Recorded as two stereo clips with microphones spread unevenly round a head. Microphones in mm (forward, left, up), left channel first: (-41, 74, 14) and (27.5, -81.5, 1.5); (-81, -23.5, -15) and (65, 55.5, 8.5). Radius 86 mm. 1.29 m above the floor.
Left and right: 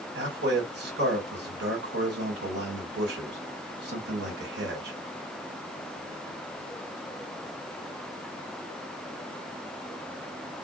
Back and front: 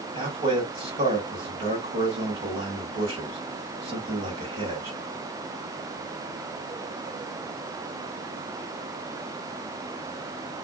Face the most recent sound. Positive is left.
turn(degrees=-35)